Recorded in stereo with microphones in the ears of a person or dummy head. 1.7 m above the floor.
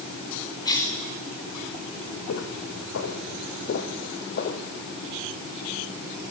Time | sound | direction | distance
0.7 | a cough | 25° left (ahead or behind) | 6 m
2.3 | footsteps | 70° left (ahead or behind) | 5 m